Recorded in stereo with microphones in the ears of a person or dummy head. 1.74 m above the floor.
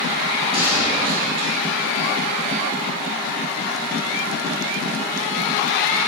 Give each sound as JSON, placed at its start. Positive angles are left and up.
{"t": 0.5, "sound": "a gunshot", "side_deg": -35, "distance_m": 2.5}